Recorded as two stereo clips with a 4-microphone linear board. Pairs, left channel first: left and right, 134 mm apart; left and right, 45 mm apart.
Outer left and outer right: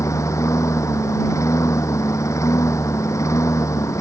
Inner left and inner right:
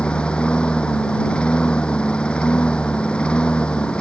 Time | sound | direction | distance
0.0 | a lawn mower | 20° left (ahead or behind) | ?